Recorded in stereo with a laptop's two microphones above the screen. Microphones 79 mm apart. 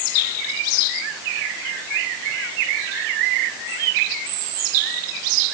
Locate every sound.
Only background noise.